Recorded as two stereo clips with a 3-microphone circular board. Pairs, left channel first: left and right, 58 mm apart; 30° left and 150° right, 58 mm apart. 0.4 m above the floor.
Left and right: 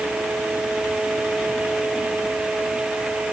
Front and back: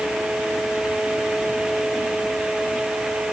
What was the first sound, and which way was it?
Only background noise.